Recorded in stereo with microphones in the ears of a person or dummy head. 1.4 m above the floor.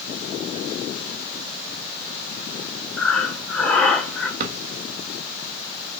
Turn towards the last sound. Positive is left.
turn(degrees=-55)  # may be behind; listen again after turning